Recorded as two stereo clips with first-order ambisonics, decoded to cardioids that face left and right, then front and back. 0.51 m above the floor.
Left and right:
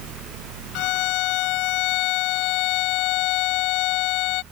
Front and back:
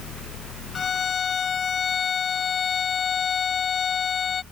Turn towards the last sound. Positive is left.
turn(degrees=65)